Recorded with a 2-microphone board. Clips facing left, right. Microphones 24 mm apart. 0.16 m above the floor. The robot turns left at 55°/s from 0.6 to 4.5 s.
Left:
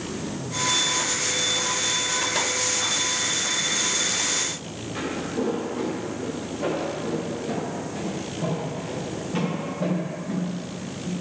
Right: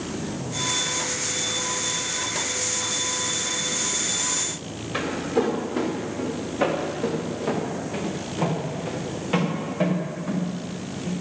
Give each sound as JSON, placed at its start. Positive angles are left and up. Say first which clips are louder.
{"t": 4.9, "sound": "footsteps", "louder": "right 4 dB", "side_deg": -50, "distance_m": 5.0}